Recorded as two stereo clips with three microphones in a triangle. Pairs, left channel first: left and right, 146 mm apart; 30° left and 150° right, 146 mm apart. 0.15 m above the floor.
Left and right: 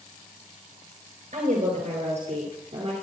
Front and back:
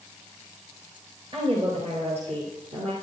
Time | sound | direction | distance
1.3 | a woman speaking | 105° right | 3 m